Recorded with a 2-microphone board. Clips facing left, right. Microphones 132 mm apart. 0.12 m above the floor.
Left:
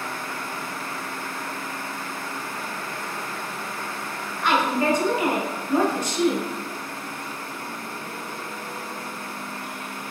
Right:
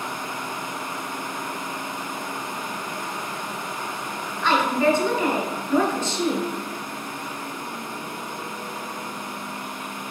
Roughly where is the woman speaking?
Centre.